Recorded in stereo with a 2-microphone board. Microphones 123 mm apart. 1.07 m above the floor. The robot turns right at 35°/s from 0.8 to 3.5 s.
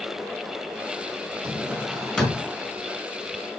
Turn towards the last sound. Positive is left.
turn(degrees=45)